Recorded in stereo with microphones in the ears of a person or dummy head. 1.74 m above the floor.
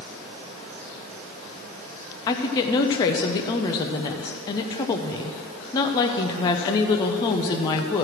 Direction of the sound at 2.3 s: 20° left (ahead or behind).